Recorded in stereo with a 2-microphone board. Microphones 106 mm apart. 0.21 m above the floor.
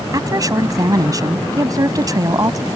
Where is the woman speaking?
35° right (ahead or behind).